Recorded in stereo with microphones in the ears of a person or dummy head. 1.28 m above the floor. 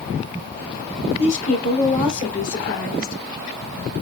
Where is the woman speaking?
30° left (ahead or behind), 2 m; by 3.1 s 50° left (ahead or behind), 3 m.